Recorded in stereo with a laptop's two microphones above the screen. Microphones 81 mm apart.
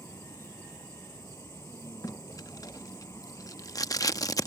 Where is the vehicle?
35° left (ahead or behind).